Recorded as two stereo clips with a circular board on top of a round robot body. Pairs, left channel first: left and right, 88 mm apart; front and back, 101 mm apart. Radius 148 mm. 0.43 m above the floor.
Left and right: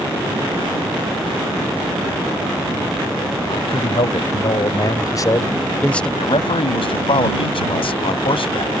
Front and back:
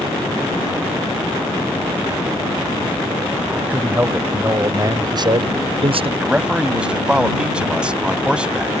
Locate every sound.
3.5 s a man speaking: 105° left; by 6.1 s 170° left
6.2 s a man speaking: 100° left